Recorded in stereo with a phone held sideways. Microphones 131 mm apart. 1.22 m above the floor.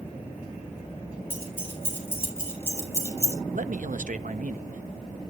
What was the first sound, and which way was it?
Keys jangling, 15° left (ahead or behind).